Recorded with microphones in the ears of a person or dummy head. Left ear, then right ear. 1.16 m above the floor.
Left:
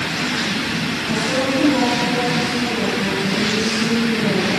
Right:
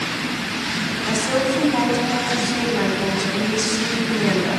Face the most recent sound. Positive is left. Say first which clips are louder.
# even
turn(degrees=-55)  # may be behind; listen again after turning